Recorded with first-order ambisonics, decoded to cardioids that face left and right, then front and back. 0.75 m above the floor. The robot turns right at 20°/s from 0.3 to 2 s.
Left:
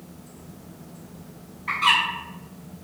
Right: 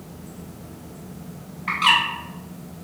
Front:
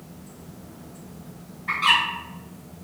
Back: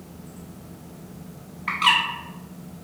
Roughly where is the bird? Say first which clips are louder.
Right 2 dB, even; behind right.